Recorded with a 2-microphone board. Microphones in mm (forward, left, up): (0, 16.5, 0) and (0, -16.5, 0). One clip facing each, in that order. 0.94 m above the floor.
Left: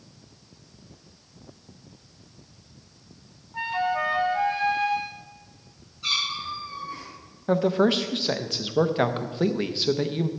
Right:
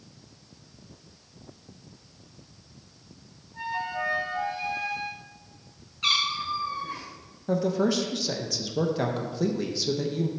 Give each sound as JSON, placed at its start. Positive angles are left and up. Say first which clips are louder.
{"t": 3.5, "sound": "a flute", "louder": "left 5 dB", "side_deg": 55, "distance_m": 0.8}
{"t": 6.0, "sound": "a cat meowing", "louder": "right 2 dB", "side_deg": -75, "distance_m": 2.0}
{"t": 7.5, "sound": "a man speaking", "louder": "left 4 dB", "side_deg": 45, "distance_m": 0.6}